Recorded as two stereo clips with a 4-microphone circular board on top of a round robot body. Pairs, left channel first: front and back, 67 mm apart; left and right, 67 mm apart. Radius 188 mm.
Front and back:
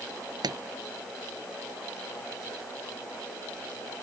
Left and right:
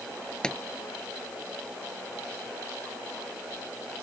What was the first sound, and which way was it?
A pop, 170° left.